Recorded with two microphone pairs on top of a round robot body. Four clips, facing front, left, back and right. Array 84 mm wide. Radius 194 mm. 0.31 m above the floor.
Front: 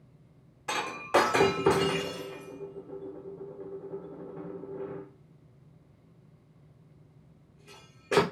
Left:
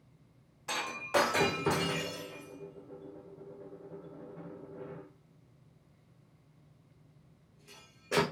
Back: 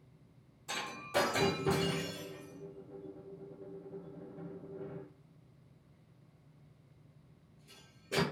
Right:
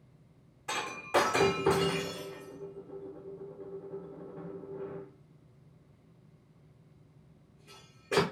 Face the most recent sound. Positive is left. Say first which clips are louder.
# right 1 dB, front 10 dB
turn(degrees=5)